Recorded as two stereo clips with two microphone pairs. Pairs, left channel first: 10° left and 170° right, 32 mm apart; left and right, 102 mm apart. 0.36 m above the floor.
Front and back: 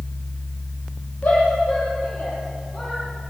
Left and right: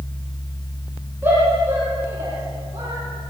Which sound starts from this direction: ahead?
A shout, at 1.2 s.